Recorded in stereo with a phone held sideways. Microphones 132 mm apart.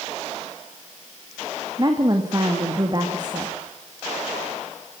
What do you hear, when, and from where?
1.8 s a woman speaking: 30° right (ahead or behind), 1.9 m